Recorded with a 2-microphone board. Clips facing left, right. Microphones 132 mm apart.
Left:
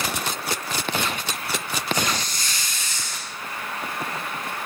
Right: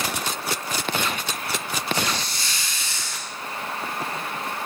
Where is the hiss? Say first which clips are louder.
Left 2 dB; 45° left (ahead or behind), 9.5 m.